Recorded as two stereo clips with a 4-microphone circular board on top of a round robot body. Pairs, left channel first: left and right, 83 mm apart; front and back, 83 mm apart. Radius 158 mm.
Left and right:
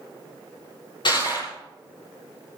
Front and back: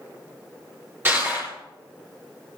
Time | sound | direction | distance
1.1 | crushing | 115° left | 4.5 m